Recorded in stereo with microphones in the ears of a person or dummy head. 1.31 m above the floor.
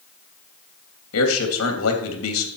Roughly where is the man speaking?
Left.